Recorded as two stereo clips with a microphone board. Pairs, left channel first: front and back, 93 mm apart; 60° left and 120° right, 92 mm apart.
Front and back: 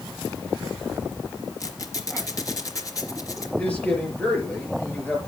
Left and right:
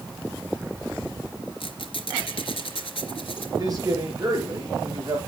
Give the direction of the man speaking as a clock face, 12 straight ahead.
2 o'clock.